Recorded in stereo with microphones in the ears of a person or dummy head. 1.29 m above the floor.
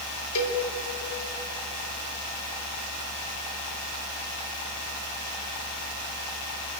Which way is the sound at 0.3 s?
75° left (ahead or behind).